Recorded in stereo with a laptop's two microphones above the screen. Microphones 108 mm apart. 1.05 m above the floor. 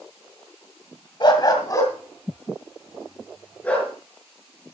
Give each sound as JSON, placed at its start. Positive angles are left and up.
{"t": 1.2, "sound": "a dog barking", "side_deg": 45, "distance_m": 1.6}